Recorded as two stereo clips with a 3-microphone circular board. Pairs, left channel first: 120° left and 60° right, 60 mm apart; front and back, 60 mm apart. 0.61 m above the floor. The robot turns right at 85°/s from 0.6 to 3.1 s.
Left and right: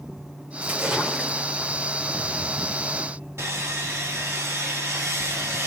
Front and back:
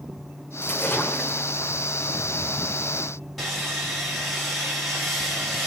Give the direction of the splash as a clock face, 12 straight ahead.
12 o'clock.